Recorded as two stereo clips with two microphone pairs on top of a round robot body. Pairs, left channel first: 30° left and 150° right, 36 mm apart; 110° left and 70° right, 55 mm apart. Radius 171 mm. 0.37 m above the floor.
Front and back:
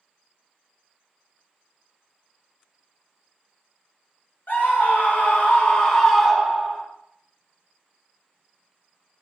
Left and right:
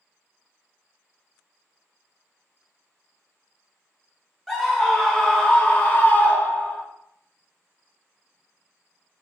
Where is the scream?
10° left, 1.2 m; by 6.8 s 170° left, 1.0 m.